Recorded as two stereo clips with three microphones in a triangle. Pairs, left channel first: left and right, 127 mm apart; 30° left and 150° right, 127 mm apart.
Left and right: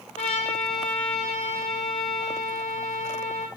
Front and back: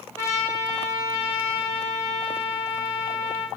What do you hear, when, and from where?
0.2 s a trumpet: 95° left, 1.0 m